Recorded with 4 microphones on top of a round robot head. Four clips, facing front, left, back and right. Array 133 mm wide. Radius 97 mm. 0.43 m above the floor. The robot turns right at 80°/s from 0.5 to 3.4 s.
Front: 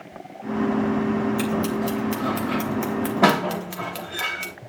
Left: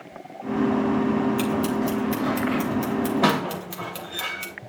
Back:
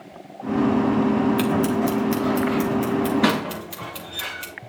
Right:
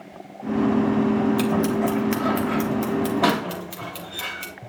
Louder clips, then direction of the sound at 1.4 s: Right 2 dB, back 3 dB; 155° right.